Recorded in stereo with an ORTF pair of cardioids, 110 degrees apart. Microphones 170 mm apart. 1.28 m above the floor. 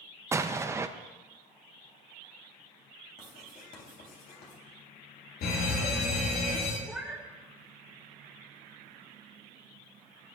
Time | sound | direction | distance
0.3 | an explosion | 15° right | 0.6 m
3.2 | writing | 60° left | 3.5 m
5.4 | a fire alarm | 70° left | 3.5 m
6.8 | a cat meowing | 5° right | 1.4 m